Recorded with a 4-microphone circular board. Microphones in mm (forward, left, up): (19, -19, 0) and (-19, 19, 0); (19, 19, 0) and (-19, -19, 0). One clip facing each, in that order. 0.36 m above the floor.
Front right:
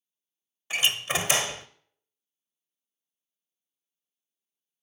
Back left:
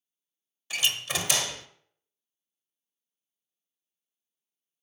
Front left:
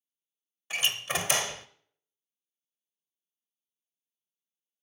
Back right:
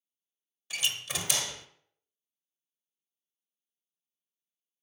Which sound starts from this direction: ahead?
A door slam, at 0.7 s.